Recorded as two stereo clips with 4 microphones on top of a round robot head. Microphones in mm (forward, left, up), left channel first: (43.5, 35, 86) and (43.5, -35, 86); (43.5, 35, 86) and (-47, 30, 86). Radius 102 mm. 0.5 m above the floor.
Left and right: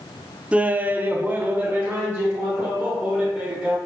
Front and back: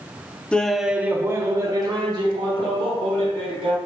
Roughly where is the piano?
No piano in this recording.